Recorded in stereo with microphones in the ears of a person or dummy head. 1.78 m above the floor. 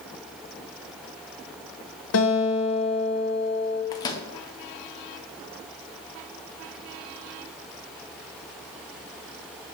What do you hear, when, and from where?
2.1 s a guitar: 60° left (ahead or behind), 1.5 m
3.9 s a microwave: 20° left (ahead or behind), 0.5 m